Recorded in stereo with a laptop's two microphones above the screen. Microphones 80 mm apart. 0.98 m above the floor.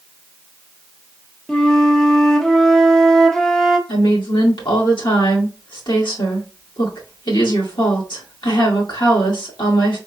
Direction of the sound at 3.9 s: 80° left.